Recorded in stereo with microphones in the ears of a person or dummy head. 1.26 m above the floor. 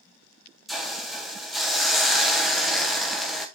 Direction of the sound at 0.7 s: 5° left (ahead or behind).